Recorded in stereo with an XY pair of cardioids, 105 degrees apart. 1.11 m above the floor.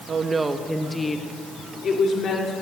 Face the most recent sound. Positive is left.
turn(degrees=55)